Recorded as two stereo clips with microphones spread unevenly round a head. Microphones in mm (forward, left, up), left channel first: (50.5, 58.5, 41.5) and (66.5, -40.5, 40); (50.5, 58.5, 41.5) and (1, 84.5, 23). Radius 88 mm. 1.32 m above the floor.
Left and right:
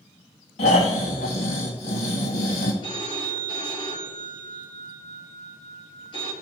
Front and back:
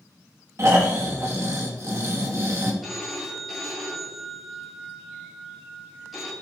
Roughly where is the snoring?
Behind left.